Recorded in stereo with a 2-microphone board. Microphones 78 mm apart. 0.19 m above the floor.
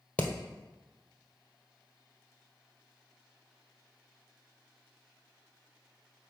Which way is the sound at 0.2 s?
15° left (ahead or behind).